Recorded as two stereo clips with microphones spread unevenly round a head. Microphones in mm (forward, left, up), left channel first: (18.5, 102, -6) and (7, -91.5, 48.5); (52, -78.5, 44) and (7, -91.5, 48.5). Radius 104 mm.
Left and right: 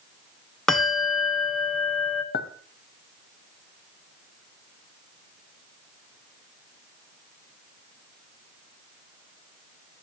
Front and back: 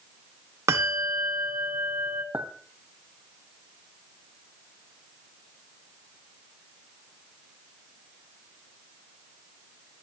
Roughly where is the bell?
Behind.